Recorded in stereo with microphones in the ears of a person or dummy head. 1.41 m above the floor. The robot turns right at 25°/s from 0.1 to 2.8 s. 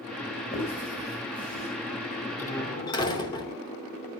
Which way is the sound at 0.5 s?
40° left (ahead or behind).